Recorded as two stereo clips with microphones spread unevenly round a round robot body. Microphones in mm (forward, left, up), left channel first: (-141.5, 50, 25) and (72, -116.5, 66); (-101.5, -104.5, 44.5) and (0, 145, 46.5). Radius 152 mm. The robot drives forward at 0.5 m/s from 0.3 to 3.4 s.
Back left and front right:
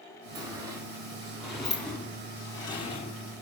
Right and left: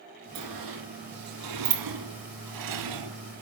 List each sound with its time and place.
0.3 s a sliding door: 40° left, 2.5 m; by 3.4 s 75° left, 1.7 m